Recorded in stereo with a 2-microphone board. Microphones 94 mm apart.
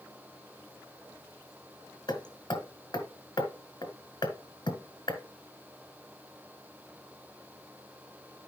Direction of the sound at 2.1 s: 50° left (ahead or behind).